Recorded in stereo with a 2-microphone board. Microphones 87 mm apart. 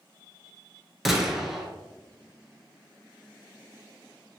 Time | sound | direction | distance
1.1 | a gunshot | centre (ahead or behind) | 0.5 m